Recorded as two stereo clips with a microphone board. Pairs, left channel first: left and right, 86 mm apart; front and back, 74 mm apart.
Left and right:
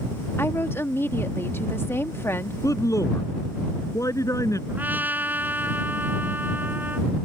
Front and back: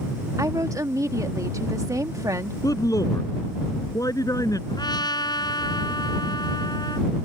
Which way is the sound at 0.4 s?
150° left.